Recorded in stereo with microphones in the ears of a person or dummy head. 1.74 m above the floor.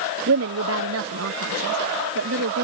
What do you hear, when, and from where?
0.3 s a woman speaking: 80° right; by 2.6 s 75° right (ahead or behind)